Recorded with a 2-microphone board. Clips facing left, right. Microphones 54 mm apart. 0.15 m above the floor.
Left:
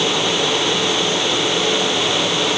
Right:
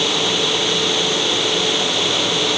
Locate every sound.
Only background noise.